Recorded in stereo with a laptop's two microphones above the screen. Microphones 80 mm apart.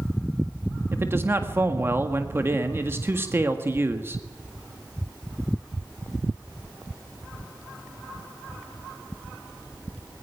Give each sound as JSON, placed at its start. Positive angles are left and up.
{"t": 0.9, "sound": "a man speaking", "side_deg": -30, "distance_m": 1.7}